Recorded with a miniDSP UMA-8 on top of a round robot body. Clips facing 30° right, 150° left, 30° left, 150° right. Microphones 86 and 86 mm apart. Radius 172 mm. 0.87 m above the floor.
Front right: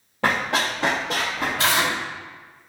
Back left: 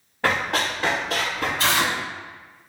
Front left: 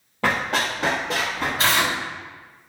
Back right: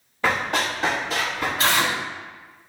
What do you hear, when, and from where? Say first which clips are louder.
0.2 s running footsteps: front right 1 dB, even; 10° right, 1.5 m; by 1.5 s straight ahead, 2.5 m
1.6 s tearing paper: front right 1 dB, even; 25° right, 1.6 m